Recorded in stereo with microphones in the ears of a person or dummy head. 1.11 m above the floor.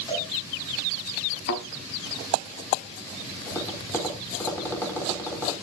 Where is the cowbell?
30° left (ahead or behind), 9.5 m.